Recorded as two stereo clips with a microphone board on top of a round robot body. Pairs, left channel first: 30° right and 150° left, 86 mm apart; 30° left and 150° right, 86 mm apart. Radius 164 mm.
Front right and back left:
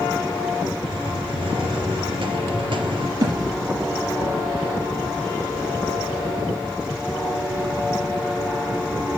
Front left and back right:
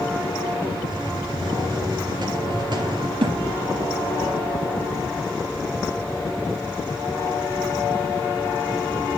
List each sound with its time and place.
0.9 s a hiss: 175° left, 3 m
3.2 s a thud: 160° right, 6.5 m